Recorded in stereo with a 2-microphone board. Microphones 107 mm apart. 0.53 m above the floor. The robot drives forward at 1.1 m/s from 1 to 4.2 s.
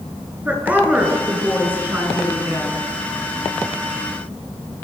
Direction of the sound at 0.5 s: 15° right (ahead or behind).